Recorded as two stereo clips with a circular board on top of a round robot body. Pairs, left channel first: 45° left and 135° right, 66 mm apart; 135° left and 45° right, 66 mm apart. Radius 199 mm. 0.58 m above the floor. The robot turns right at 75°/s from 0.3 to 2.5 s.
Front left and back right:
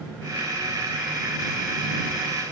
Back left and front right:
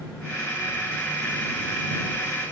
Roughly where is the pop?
I don't hear a pop.